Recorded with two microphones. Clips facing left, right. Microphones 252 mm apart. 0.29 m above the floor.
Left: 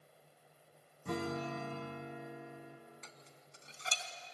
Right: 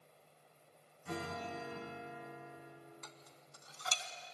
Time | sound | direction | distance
1.1 | a guitar | 55° left (ahead or behind) | 5 m
3.0 | dishes clattering | 25° left (ahead or behind) | 1.7 m